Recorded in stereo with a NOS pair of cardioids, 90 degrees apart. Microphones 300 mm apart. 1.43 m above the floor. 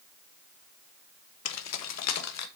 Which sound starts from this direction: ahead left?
Keys jangling, at 1.4 s.